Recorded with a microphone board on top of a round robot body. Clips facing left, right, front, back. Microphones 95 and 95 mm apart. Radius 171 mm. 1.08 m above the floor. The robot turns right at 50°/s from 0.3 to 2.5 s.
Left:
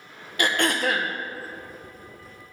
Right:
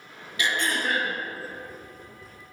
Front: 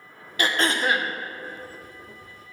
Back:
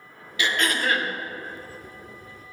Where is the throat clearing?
50° left, 1.0 m; by 1.1 s 85° left, 1.0 m.